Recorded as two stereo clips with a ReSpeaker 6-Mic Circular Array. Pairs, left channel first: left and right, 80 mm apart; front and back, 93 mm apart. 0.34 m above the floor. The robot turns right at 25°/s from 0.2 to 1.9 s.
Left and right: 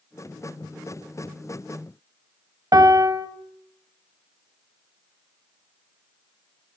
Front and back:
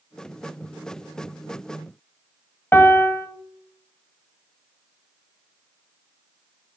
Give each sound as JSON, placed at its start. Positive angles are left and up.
{"t": 2.7, "sound": "a piano", "azimuth_deg": -65, "distance_m": 0.8}